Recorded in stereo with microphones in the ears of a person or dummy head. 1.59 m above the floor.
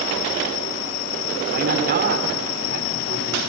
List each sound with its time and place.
1.5 s a man speaking: 55° right (ahead or behind), 4.5 m